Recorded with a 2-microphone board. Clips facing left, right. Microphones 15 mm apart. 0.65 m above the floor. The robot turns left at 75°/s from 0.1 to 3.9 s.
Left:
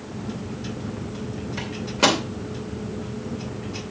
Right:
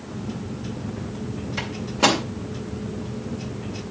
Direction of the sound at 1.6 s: 10° right (ahead or behind).